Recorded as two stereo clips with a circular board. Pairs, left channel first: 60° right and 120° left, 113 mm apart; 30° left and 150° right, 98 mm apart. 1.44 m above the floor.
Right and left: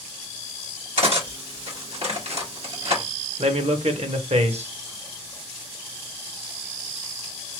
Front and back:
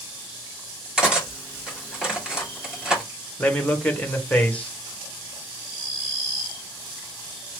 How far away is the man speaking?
About 1.1 m.